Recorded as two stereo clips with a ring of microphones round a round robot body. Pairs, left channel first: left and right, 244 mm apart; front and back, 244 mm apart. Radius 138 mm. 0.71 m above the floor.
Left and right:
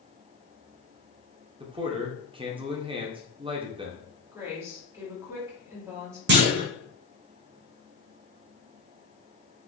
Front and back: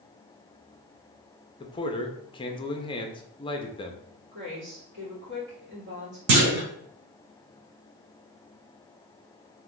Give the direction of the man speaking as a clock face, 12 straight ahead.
2 o'clock.